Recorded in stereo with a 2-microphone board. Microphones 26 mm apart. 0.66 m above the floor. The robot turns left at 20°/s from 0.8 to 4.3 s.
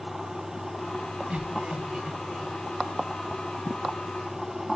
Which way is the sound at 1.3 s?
55° right (ahead or behind).